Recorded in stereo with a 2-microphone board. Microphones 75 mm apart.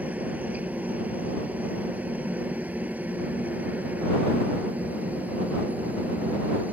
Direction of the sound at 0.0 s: 20° right (ahead or behind).